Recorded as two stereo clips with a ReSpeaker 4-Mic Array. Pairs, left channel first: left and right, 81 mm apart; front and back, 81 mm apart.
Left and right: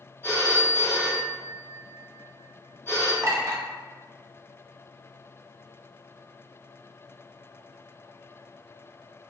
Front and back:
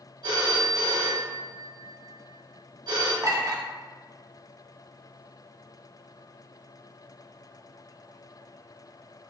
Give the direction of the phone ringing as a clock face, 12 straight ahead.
7 o'clock.